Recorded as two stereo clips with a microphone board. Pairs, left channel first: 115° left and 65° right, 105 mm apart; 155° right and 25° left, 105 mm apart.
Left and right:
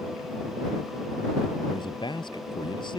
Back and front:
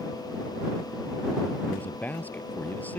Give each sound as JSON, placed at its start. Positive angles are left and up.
{"t": 1.7, "sound": "a man speaking", "azimuth_deg": 130}